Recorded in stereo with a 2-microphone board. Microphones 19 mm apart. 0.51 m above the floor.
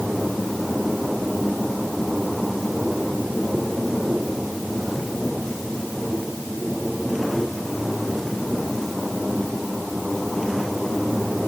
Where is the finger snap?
No finger snap in this recording.